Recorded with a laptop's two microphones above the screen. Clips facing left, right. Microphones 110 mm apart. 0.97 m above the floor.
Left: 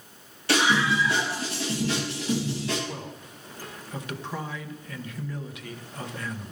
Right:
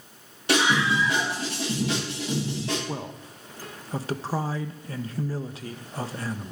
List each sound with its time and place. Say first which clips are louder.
0.5 s a scream: even; 20° right (ahead or behind), 6 m; by 2.8 s 35° right (ahead or behind), 7 m
2.9 s a man speaking: right 3 dB; 35° right (ahead or behind), 0.8 m